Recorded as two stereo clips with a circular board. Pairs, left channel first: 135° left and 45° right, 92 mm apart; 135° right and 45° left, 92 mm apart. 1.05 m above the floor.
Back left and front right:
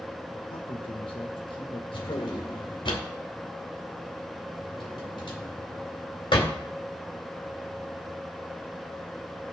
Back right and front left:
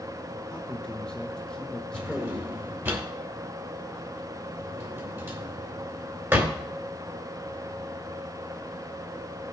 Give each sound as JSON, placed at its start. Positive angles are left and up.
{"t": 0.5, "sound": "a man speaking", "azimuth_deg": 145, "distance_m": 1.7}
{"t": 1.9, "sound": "a drawer", "azimuth_deg": 110, "distance_m": 2.0}